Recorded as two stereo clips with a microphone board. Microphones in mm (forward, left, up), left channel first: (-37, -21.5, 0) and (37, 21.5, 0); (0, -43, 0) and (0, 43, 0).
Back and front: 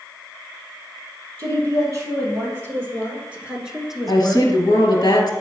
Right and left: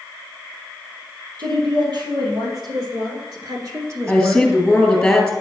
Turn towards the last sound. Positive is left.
turn(degrees=-175)